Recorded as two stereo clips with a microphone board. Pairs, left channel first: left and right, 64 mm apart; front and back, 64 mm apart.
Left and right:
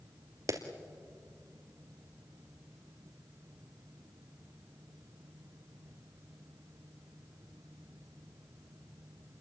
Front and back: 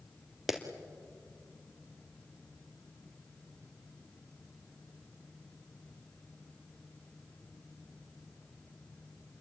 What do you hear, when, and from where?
0.5 s a clap: 95° right, 2 m